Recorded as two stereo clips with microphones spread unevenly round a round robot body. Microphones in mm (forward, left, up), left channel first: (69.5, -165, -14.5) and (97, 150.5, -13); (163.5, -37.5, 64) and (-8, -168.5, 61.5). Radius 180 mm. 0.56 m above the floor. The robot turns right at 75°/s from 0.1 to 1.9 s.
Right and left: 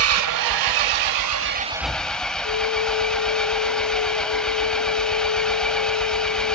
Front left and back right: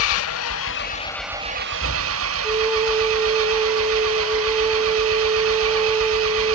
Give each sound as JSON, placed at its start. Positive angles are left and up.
{"t": 0.0, "sound": "an engine running", "azimuth_deg": 40, "distance_m": 0.8}
{"t": 2.4, "sound": "a flute", "azimuth_deg": -80, "distance_m": 2.0}